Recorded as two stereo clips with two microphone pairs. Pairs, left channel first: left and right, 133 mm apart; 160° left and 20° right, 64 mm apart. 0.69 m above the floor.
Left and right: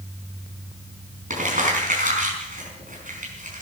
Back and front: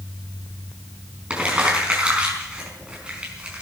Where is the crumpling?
90° right, 5 m.